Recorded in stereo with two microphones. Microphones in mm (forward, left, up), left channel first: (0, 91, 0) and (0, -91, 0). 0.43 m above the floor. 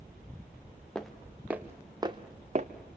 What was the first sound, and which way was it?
Footsteps, 5° left (ahead or behind).